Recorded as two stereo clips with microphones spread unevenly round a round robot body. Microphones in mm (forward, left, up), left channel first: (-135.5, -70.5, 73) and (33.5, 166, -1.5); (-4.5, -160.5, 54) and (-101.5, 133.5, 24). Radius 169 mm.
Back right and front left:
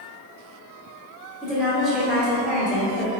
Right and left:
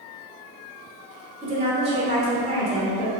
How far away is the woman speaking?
About 1.4 m.